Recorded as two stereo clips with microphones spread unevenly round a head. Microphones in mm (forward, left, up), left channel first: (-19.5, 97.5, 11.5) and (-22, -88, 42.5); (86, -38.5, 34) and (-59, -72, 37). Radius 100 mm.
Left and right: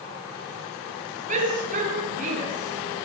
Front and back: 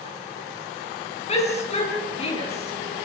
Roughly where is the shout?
Ahead right.